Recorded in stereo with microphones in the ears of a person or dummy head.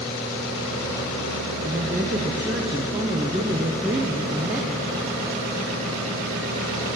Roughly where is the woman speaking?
Centre.